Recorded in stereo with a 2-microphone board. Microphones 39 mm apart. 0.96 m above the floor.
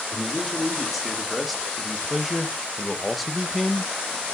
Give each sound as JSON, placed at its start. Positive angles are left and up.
{"t": 0.1, "sound": "a man speaking", "side_deg": 0, "distance_m": 2.5}